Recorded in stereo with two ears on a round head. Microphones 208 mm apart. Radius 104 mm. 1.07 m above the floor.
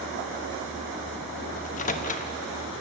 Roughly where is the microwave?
Left.